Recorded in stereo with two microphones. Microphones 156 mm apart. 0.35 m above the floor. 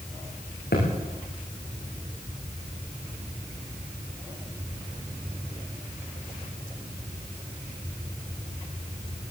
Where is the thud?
90° left, 9.5 m.